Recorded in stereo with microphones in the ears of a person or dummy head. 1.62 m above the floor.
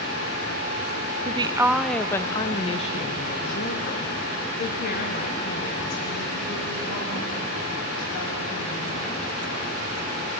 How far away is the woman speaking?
About 0.7 m.